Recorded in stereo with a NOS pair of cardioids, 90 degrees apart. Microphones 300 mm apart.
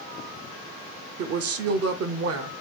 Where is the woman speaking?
50° right, 1.0 m.